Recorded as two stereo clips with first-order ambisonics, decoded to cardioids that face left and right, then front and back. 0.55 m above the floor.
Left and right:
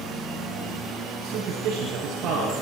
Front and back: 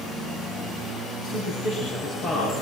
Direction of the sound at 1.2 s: 55° right.